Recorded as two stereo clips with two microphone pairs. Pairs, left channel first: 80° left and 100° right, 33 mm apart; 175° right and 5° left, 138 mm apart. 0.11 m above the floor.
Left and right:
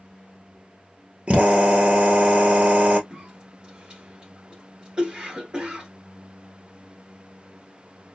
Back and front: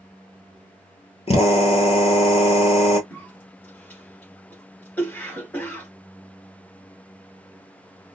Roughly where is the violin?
No violin in this recording.